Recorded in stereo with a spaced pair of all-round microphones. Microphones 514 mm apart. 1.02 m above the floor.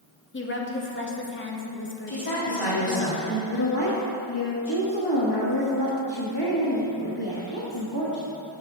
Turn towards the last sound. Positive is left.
turn(degrees=50)  # may be behind; listen again after turning